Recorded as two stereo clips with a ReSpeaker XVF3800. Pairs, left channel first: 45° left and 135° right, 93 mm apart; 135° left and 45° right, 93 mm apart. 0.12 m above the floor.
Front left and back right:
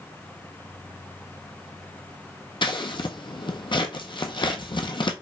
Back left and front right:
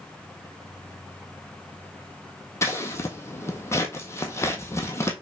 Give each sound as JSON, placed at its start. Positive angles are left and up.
{"t": 2.6, "sound": "scissors", "azimuth_deg": 75, "distance_m": 0.7}